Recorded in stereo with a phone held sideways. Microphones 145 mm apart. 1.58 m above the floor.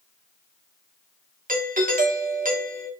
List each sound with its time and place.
1.5 s a doorbell: 70° right (ahead or behind), 1.5 m